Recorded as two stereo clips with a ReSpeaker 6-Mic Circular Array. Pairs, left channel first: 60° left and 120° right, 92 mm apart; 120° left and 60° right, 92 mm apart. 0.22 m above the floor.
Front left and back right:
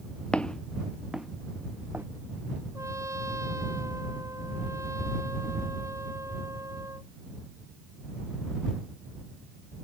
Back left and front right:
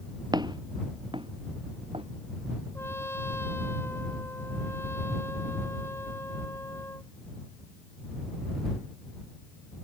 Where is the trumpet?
175° right.